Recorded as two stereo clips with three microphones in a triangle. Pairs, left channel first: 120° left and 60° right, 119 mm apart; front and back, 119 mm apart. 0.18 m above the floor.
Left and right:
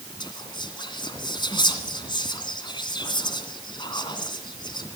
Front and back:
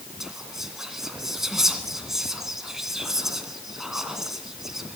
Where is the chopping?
No chopping in this recording.